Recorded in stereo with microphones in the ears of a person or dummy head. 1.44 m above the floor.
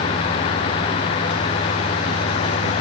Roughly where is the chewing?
No chewing in this recording.